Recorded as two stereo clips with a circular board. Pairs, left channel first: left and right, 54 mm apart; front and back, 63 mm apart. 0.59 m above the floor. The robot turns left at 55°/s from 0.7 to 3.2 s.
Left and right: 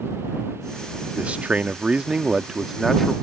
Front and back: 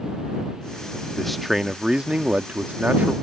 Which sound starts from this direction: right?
A man speaking, at 1.2 s.